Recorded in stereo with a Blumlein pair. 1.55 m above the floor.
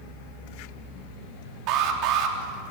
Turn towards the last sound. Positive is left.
turn(degrees=-40)